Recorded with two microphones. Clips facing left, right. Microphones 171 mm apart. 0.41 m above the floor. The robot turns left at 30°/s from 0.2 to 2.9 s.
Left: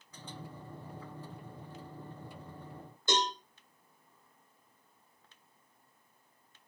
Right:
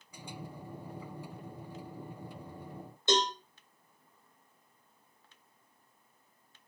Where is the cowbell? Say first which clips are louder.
Right 3 dB; 20° right (ahead or behind), 2 m.